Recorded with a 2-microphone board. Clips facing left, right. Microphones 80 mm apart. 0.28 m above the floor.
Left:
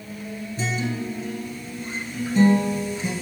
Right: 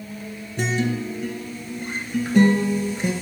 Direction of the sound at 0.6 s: 70° right (ahead or behind).